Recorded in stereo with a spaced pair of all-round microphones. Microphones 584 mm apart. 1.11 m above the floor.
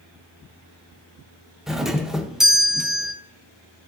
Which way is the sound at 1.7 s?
Centre (ahead or behind).